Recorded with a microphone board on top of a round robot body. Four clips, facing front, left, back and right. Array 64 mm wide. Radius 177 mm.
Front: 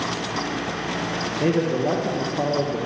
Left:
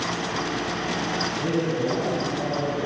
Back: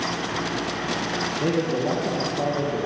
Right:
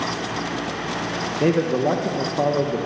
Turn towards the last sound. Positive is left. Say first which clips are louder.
# right 8 dB, front 3 dB
turn(degrees=-80)